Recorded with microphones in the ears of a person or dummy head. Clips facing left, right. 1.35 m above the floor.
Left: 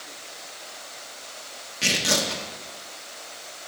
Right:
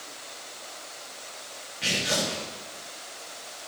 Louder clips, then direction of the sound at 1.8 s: Left 2 dB; 60° left (ahead or behind).